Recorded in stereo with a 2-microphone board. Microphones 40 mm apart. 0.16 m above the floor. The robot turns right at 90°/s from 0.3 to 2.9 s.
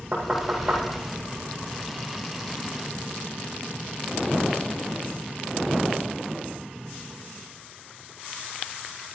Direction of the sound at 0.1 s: 20° right (ahead or behind).